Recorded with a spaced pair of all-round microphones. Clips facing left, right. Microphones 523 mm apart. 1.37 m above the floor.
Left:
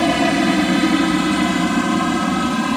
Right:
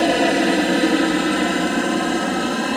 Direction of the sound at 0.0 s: 25° left (ahead or behind).